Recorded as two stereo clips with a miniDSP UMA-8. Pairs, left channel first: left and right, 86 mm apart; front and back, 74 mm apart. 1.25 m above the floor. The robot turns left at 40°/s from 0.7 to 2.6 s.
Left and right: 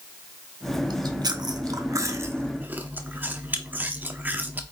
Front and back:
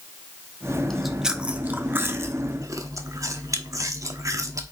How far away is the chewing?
About 1.0 m.